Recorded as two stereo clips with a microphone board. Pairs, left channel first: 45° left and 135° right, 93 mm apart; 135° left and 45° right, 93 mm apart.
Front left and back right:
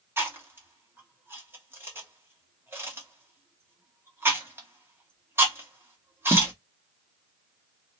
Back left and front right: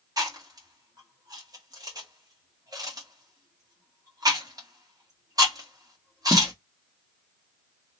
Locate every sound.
0.2 s chewing: 75° right, 1.2 m